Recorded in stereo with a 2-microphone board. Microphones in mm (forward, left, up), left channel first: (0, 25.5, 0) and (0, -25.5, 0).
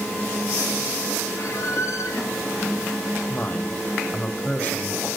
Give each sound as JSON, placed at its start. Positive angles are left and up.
{"t": 1.4, "sound": "a squeak", "side_deg": 70, "distance_m": 4.0}
{"t": 3.3, "sound": "a woman speaking", "side_deg": 35, "distance_m": 1.8}